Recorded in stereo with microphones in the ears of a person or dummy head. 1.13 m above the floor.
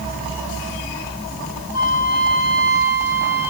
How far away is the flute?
About 8 m.